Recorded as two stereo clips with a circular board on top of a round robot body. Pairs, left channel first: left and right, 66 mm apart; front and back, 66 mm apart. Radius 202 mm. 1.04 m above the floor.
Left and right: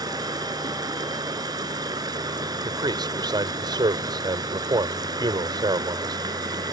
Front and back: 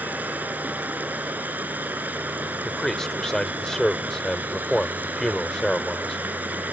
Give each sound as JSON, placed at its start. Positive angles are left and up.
{"t": 0.0, "sound": "running water", "azimuth_deg": -110}
{"t": 2.6, "sound": "a man speaking", "azimuth_deg": -80}